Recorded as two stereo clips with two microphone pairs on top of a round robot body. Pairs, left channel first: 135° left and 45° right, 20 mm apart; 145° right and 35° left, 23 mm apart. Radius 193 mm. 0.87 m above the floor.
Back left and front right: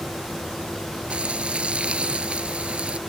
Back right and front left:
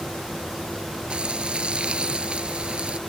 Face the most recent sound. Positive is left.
turn(degrees=-15)